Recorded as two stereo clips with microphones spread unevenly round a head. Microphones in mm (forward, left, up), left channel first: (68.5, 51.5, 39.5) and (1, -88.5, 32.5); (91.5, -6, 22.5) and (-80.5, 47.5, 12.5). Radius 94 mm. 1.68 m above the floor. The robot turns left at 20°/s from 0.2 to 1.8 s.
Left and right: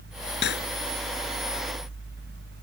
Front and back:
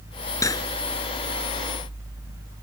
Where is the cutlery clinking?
55° left; by 0.7 s 50° left.